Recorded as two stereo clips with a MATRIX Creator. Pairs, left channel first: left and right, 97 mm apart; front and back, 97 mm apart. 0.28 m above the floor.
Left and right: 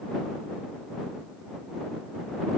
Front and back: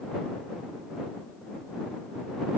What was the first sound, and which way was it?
Only background noise.